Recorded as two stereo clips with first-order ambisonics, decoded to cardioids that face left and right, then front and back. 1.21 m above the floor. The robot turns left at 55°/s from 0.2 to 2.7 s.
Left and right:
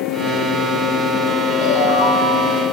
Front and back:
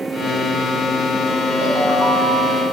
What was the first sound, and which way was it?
A ringtone, 120° left.